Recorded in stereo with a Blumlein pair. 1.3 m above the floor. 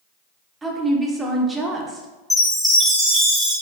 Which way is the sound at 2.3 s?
Straight ahead.